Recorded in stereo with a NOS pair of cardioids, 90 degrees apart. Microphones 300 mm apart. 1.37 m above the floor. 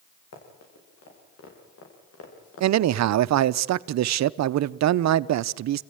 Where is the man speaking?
65° right, 0.8 m.